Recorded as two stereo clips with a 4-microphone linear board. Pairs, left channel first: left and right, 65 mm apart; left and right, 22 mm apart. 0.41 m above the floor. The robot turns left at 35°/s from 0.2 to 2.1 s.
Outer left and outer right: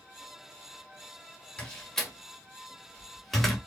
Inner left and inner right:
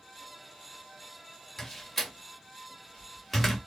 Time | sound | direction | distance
1.6 | a door slam | 20° left (ahead or behind) | 1.3 m